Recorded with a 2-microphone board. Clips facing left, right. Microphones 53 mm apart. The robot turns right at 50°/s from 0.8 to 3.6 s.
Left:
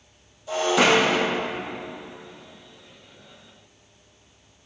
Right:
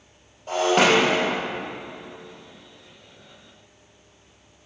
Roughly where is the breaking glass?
Right.